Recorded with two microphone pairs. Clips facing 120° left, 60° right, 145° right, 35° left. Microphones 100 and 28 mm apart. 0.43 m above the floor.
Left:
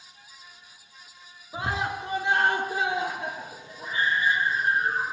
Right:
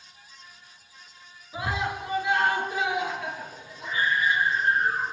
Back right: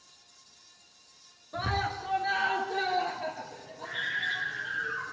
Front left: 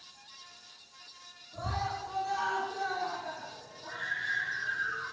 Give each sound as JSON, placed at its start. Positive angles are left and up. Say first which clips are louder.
{"t": 1.5, "sound": "a scream", "louder": "even, back right 4 dB", "azimuth_deg": 180, "distance_m": 6.0}